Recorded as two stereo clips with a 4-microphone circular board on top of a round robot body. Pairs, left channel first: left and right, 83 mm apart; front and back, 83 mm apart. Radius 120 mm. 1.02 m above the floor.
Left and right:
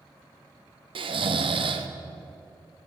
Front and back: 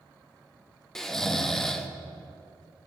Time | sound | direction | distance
0.9 | snoring | 85° right | 1.5 m